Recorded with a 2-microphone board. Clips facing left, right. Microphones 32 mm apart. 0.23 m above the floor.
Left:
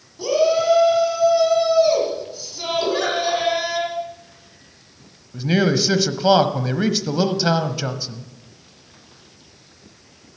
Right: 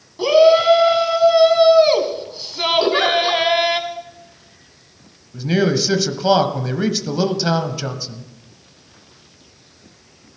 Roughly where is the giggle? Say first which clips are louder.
Right 3 dB; right.